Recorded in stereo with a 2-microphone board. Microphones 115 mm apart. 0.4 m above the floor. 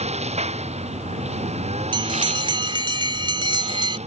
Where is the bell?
45° right (ahead or behind).